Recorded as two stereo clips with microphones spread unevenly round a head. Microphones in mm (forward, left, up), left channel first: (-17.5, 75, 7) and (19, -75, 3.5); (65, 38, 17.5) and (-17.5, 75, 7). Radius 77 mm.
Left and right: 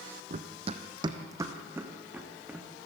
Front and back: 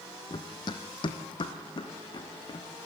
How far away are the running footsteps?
About 1.6 m.